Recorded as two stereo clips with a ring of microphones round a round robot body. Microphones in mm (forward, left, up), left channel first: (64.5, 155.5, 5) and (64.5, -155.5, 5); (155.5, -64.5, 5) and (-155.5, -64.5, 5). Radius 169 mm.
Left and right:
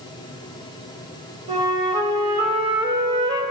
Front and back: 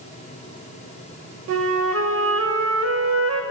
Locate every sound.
1.5 s a flute: 160° right, 0.9 m